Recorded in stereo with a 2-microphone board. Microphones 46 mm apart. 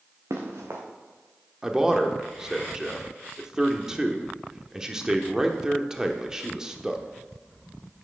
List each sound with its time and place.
0.3 s running footsteps: 75° right (ahead or behind), 2 m
1.6 s a man speaking: 15° right (ahead or behind), 1.0 m